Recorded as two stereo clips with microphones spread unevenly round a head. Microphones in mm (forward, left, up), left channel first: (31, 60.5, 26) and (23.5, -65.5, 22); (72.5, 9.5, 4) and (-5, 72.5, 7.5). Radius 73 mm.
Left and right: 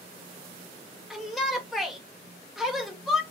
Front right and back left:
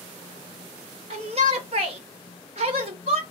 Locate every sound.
1.1 s a shout: 175° left, 0.8 m